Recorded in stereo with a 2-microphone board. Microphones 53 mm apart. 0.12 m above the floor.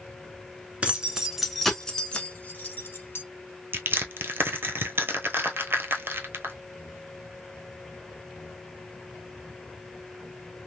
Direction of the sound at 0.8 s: 25° right (ahead or behind).